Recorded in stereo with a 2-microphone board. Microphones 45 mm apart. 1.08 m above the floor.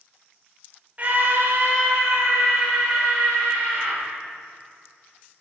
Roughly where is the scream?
Right.